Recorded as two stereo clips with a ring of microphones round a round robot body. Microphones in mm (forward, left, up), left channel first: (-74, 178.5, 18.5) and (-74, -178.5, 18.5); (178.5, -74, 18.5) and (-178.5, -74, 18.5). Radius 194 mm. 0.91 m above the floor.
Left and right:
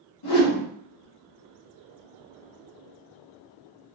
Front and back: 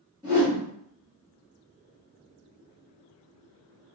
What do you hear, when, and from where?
0.2 s a whoosh: 100° left, 1.4 m